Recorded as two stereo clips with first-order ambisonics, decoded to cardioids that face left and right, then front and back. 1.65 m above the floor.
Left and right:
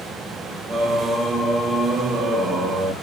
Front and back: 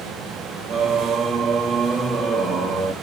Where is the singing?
135° right, 1.2 m.